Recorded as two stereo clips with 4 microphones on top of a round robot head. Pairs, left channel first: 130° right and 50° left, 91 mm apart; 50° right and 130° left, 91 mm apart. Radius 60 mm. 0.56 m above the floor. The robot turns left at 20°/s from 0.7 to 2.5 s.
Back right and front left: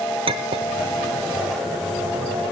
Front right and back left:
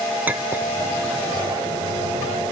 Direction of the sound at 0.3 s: 60° left.